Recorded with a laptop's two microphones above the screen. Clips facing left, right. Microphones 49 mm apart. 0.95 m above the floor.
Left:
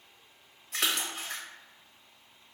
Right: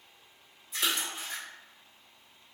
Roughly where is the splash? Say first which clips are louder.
Left 1 dB; left.